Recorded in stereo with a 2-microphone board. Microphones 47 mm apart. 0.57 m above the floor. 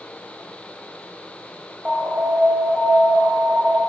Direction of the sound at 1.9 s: 35° right (ahead or behind).